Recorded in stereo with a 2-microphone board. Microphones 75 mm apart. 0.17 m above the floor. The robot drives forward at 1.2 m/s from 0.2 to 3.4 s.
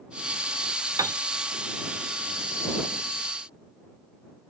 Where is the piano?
50° right (ahead or behind), 0.6 m; by 1.2 s 45° right (ahead or behind), 0.6 m.